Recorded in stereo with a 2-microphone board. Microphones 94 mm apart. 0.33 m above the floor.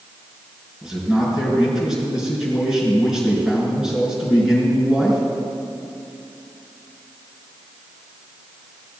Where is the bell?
I don't hear a bell.